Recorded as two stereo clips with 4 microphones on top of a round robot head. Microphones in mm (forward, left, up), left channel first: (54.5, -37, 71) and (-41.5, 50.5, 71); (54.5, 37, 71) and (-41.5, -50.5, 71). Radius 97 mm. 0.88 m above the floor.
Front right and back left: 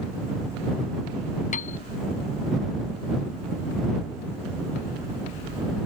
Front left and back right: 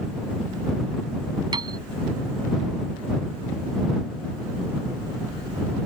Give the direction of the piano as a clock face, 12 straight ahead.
3 o'clock.